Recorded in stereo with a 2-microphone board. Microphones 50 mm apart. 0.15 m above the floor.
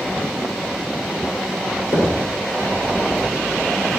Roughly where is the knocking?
Left.